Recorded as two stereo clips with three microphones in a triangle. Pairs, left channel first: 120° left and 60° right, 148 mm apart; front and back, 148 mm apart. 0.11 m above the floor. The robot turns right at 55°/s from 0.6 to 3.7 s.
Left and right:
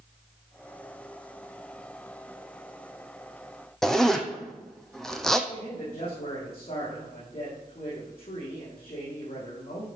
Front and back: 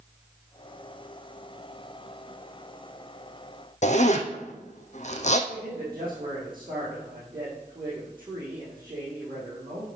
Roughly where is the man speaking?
Behind left.